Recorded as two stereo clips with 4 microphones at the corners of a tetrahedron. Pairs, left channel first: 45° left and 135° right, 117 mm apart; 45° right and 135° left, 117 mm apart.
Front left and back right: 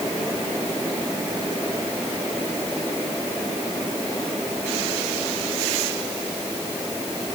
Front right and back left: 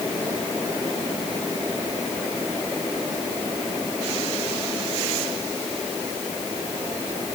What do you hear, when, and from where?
Only background noise.